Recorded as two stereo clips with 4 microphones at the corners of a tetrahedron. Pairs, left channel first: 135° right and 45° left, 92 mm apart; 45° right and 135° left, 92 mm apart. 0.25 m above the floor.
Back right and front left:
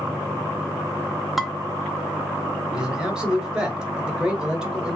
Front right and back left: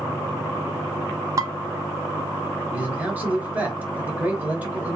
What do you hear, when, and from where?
1.4 s dishes clattering: 135° left, 0.7 m
2.7 s a man speaking: 110° left, 1.2 m